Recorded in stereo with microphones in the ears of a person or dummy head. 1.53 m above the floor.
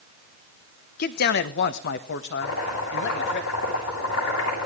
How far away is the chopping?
About 8.5 m.